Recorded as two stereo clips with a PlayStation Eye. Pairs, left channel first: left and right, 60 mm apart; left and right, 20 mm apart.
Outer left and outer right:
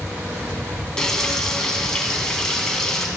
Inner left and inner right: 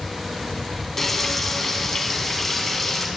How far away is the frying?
About 2 m.